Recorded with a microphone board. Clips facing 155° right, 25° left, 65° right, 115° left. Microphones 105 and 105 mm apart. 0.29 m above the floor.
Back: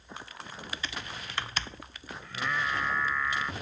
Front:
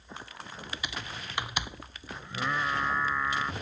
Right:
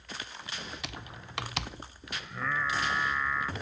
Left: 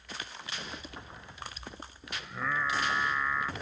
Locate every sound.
0.8 s typing on a keyboard: 50° right
2.2 s singing: 35° left